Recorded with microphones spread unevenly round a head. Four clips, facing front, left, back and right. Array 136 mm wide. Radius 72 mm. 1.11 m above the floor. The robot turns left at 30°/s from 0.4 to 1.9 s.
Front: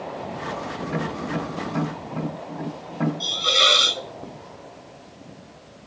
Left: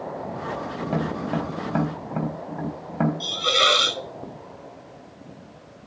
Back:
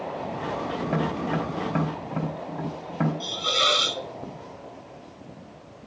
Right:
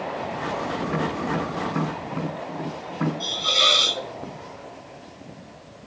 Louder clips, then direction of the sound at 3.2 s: Left 3 dB, front 2 dB; 55° left.